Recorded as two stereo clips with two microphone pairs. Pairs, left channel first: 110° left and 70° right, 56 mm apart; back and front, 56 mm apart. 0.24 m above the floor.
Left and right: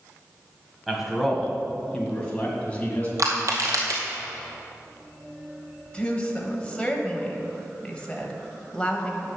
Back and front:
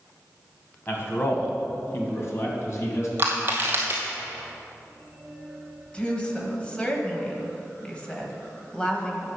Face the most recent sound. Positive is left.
turn(degrees=145)